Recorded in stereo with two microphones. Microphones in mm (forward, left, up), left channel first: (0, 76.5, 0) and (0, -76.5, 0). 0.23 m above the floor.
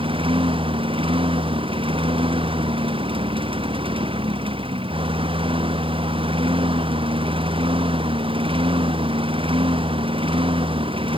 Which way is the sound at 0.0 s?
35° right (ahead or behind).